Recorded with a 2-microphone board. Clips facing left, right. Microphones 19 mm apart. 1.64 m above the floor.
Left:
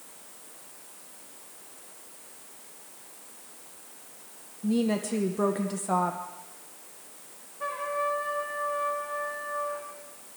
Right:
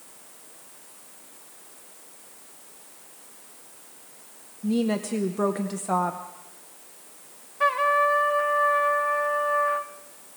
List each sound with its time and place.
4.6 s a woman speaking: 10° right (ahead or behind), 0.9 m
7.6 s a trumpet: 65° right (ahead or behind), 1.8 m